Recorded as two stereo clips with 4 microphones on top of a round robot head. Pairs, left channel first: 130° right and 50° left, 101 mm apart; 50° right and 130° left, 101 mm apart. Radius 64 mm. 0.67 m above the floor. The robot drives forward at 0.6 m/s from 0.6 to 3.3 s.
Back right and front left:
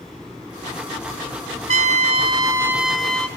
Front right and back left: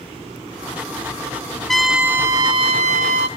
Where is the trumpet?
35° left, 0.6 m; by 3.3 s 150° left, 0.7 m.